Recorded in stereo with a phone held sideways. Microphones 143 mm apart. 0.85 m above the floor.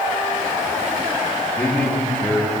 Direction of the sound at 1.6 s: 15° left (ahead or behind).